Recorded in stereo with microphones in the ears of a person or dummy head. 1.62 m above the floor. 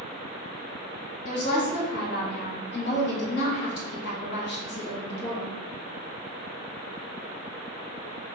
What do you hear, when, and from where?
1.2 s a woman speaking: 65° left (ahead or behind), 1.3 m